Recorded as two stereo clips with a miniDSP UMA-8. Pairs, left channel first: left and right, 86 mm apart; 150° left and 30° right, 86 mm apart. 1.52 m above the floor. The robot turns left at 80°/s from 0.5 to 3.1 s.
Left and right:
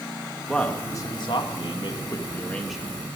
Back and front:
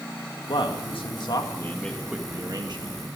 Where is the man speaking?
175° left, 2.0 m; by 3.0 s 25° right, 2.0 m.